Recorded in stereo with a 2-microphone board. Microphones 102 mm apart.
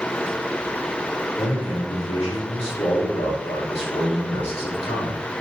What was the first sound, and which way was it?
A man speaking, 85° left.